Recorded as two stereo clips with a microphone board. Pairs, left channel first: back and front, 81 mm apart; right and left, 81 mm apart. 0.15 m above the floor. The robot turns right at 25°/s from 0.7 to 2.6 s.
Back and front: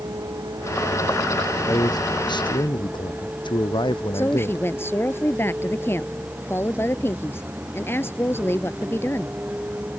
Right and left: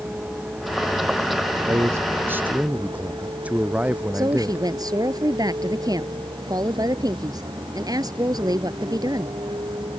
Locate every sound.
0.0 s a vehicle: 25° left; by 10.0 s 70° left
1.7 s a man speaking: 140° left; by 4.7 s 165° left
4.1 s a woman speaking: 120° left